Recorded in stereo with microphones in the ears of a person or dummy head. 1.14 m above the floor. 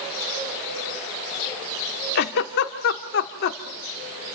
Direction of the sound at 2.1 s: 60° left (ahead or behind).